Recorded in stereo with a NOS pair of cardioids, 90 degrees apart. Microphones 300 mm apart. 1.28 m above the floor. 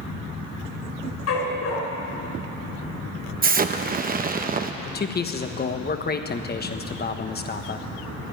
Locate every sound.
1.3 s a dog barking: 55° left, 4 m
3.4 s an explosion: 30° right, 0.9 m
4.8 s a man speaking: 30° left, 1.2 m